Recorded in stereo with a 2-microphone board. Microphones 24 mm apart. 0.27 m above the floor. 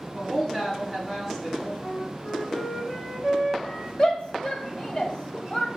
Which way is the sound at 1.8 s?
45° left (ahead or behind).